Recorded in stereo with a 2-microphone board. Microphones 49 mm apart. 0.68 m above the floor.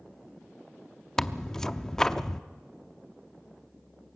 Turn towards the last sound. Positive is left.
turn(degrees=10)  # may be behind; listen again after turning